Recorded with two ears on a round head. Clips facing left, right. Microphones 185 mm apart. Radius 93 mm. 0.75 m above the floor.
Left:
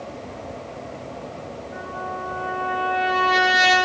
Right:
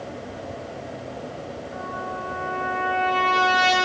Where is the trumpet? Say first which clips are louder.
Left 1 dB; 35° left (ahead or behind), 9.5 m.